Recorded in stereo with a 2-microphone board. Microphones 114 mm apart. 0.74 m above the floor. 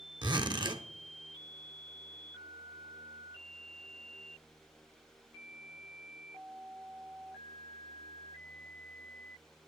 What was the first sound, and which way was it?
A zipper, 45° right (ahead or behind).